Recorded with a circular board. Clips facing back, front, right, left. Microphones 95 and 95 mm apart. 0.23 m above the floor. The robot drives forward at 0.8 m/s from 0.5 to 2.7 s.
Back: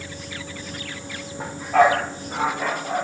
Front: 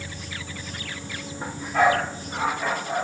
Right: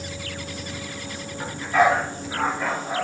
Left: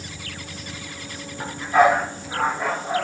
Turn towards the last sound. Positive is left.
turn(degrees=170)